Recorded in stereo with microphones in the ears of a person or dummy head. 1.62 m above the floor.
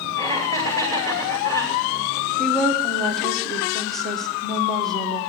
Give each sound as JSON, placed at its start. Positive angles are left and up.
{"t": 0.2, "sound": "laughter", "side_deg": 15, "distance_m": 2.5}
{"t": 2.4, "sound": "a woman speaking", "side_deg": 5, "distance_m": 1.6}